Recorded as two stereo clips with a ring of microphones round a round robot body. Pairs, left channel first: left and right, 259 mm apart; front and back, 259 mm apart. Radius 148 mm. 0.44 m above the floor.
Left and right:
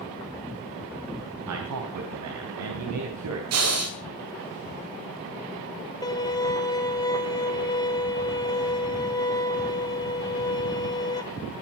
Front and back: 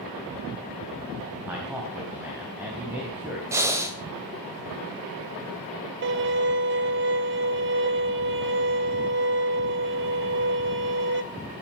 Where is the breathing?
100° right, 2.5 m.